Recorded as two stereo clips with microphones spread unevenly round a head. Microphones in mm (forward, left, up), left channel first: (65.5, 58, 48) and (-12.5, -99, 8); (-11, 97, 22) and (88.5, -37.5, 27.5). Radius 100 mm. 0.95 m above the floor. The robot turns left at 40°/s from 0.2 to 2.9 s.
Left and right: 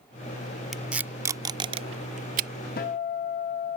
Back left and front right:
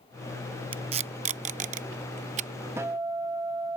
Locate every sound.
0.7 s tape being pulled: 15° right; by 2.5 s 85° right
2.8 s a guitar: 25° left; by 3.8 s 15° left